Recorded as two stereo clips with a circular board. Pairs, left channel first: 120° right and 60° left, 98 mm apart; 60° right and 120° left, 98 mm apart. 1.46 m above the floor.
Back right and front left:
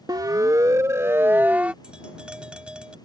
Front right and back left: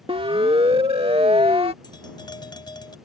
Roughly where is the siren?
Left.